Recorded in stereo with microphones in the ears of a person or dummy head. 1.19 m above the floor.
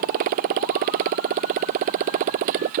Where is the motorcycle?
55° right (ahead or behind); by 2.8 s 50° right (ahead or behind).